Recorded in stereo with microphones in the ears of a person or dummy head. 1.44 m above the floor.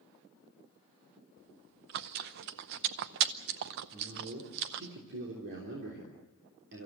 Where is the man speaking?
65° right (ahead or behind), 3.5 m.